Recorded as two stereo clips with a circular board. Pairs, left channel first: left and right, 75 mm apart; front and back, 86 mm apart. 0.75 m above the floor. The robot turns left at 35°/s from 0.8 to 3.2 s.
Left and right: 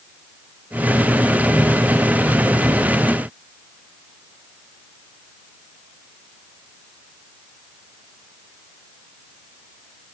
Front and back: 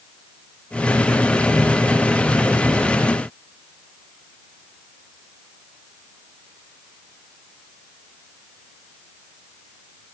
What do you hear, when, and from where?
Only background noise.